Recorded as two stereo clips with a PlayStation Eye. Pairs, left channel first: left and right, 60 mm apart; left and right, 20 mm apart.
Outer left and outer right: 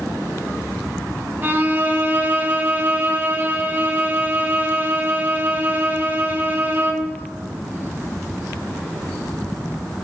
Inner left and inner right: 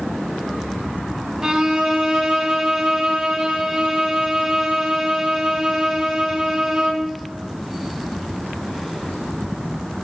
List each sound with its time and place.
1.4 s a violin: 30° right (ahead or behind), 0.8 m